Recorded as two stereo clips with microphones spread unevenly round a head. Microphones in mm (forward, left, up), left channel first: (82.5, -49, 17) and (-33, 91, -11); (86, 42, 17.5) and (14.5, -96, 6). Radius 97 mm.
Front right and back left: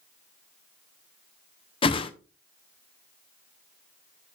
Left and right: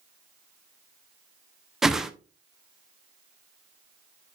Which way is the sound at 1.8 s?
25° right.